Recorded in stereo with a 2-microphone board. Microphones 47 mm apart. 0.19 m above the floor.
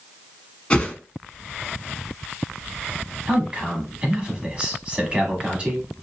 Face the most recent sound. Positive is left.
turn(degrees=-25)  # may be behind; listen again after turning